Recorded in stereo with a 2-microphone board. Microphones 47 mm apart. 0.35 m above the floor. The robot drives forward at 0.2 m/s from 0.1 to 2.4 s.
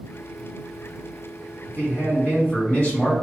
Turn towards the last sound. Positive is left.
turn(degrees=50)  # may be behind; listen again after turning